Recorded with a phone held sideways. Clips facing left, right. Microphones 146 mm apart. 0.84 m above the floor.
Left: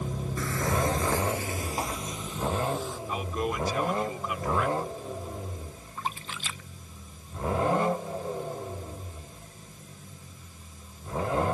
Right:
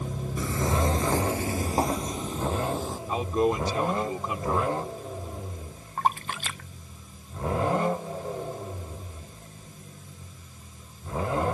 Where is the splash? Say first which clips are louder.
Right 9 dB; 60° right (ahead or behind).